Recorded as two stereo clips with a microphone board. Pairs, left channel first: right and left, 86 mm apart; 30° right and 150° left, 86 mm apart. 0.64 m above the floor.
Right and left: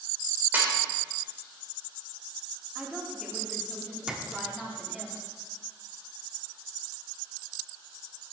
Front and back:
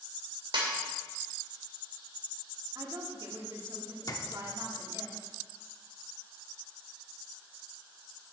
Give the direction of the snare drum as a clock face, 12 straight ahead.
7 o'clock.